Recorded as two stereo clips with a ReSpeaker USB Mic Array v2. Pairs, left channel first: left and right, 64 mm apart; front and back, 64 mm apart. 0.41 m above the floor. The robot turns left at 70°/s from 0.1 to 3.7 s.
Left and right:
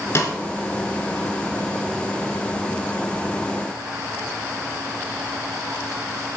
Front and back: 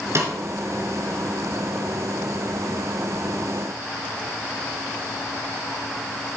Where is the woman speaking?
No woman speaking in this recording.